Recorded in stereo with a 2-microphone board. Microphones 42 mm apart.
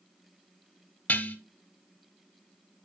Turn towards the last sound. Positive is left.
turn(degrees=40)  # may be behind; listen again after turning